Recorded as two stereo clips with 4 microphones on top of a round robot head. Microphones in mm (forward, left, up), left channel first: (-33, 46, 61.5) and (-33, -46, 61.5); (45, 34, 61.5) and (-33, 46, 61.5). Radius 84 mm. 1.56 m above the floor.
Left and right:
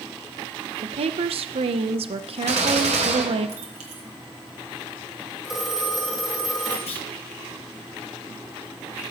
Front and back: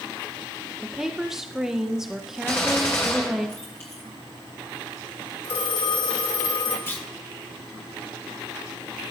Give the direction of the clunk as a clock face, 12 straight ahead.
10 o'clock.